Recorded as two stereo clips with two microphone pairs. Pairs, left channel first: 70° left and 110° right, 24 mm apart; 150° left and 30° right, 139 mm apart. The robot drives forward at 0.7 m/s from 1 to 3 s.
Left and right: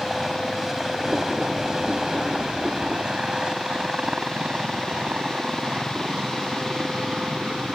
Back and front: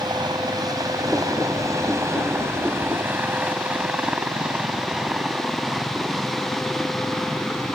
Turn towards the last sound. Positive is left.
turn(degrees=-125)